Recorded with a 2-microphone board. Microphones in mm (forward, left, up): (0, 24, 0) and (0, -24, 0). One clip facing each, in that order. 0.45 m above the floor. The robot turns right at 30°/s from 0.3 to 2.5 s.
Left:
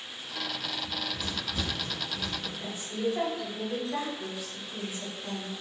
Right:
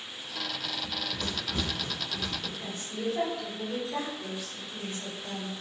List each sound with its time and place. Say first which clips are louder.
0.8 s running footsteps: even; 55° right (ahead or behind), 0.7 m; by 2.5 s 75° right (ahead or behind), 1.8 m
2.6 s a woman speaking: left 5 dB; 10° left (ahead or behind), 1.0 m